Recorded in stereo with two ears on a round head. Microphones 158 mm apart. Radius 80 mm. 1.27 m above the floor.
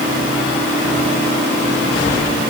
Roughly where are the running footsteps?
I don't hear running footsteps.